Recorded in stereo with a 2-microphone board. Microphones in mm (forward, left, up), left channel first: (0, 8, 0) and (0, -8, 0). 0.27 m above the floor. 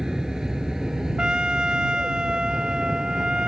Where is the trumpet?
65° right (ahead or behind).